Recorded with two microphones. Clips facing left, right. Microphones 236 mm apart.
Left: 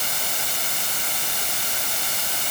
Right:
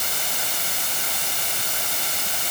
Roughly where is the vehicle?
No vehicle in this recording.